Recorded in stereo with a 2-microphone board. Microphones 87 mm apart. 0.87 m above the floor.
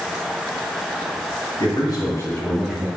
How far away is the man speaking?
About 1.5 m.